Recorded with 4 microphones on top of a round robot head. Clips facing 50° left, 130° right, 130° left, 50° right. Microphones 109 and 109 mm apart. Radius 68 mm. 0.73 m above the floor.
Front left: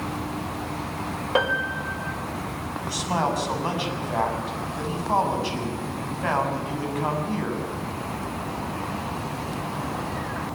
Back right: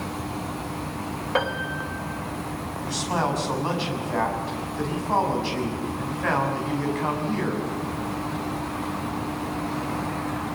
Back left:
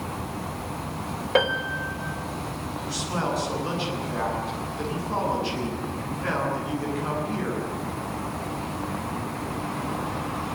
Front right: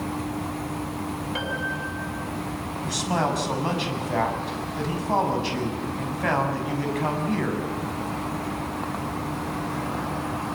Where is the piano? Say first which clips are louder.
Front left 2 dB, back left 5 dB; 125° left, 3 m.